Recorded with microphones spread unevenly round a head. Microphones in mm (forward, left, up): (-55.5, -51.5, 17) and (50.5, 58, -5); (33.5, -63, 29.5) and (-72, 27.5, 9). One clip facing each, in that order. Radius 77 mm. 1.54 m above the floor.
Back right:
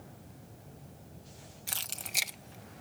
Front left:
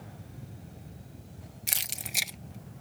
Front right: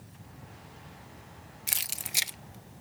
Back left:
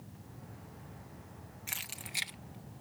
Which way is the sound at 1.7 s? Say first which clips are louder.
Even, front right 4 dB; 20° right.